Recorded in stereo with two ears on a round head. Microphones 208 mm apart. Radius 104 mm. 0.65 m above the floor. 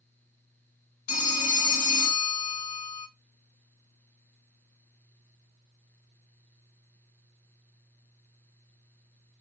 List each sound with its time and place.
1.1 s a phone ringing: 35° left (ahead or behind), 0.8 m